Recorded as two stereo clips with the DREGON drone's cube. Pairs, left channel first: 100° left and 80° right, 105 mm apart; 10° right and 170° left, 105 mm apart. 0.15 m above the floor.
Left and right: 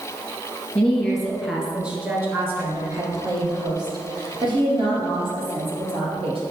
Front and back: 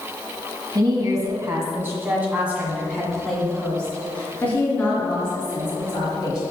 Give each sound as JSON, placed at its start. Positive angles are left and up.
{"t": 0.8, "sound": "a woman speaking", "azimuth_deg": 180, "distance_m": 2.0}